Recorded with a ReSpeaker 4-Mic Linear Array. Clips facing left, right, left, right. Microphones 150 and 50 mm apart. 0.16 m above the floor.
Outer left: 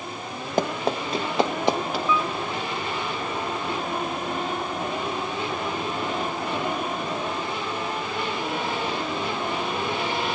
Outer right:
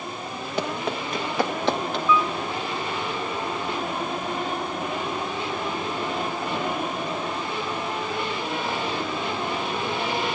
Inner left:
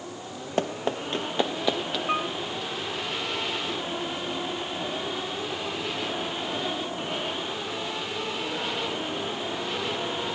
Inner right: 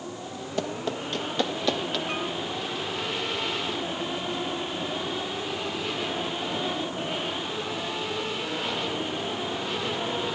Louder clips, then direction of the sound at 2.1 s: Outer right 4 dB, inner left 3 dB; 25° left (ahead or behind).